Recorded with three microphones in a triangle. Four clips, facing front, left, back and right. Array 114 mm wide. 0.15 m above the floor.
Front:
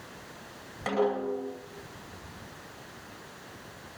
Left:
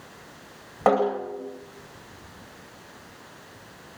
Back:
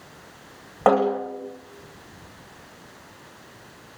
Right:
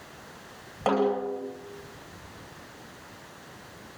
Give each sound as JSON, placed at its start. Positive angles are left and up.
{"t": 0.9, "sound": "a snare drum", "azimuth_deg": 155, "distance_m": 9.0}